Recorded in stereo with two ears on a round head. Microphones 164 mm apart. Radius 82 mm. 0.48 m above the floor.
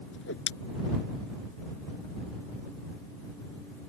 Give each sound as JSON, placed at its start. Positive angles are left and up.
{"t": 0.1, "sound": "a whoosh", "side_deg": 80}